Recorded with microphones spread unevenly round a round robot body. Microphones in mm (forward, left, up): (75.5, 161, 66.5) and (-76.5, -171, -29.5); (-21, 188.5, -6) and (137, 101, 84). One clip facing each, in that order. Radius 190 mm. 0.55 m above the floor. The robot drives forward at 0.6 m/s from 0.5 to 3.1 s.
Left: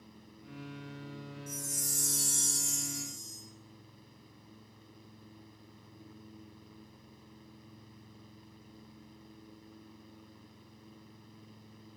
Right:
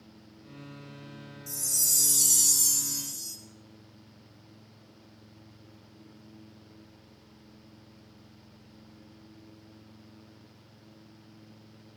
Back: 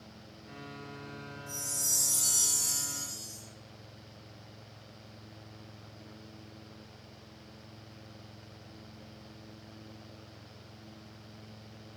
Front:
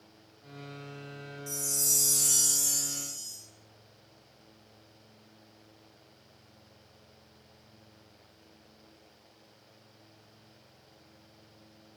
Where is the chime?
50° right, 2.5 m; by 3.4 s 75° right, 2 m.